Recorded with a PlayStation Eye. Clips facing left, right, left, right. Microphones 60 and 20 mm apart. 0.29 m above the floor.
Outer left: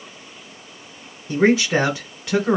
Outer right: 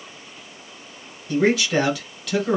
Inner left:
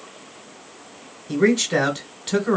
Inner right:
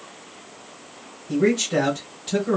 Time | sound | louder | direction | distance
1.3 | a man speaking | outer left 2 dB, inner left 2 dB | 30° left (ahead or behind) | 1.4 m